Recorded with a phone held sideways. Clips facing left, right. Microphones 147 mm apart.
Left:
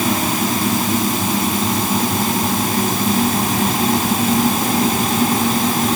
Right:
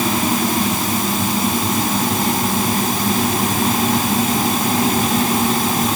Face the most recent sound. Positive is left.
No sound to turn to.